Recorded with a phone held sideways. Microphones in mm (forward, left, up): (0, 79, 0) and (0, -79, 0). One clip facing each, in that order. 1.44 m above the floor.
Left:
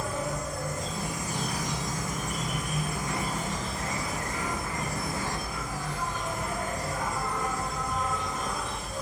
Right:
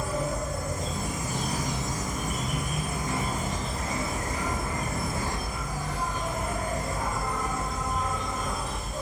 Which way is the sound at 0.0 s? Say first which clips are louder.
Right 2 dB; 45° right (ahead or behind).